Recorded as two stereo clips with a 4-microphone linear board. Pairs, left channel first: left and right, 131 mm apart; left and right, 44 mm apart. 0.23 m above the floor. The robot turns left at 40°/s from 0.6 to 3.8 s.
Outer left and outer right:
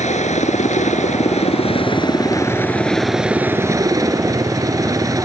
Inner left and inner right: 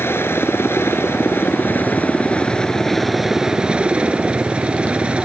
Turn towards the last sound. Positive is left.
turn(degrees=-30)